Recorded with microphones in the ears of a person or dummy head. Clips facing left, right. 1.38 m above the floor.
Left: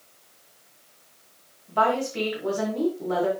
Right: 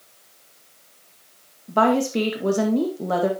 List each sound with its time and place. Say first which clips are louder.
1.7 s a woman speaking: right 5 dB; 55° right (ahead or behind), 1.8 m